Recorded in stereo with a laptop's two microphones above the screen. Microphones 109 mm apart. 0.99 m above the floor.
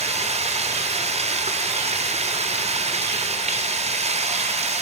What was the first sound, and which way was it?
Running water, 85° right.